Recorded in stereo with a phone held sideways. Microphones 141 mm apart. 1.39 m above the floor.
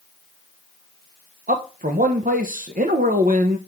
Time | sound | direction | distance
1.5 | a man speaking | 75° right (ahead or behind) | 1.0 m